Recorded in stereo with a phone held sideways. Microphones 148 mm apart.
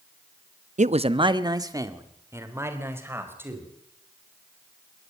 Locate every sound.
0.8 s a man speaking: 55° right (ahead or behind), 0.7 m; by 3.7 s 15° right (ahead or behind), 4.5 m